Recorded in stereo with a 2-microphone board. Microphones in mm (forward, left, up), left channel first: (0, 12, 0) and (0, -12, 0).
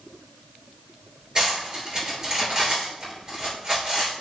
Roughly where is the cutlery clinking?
Right.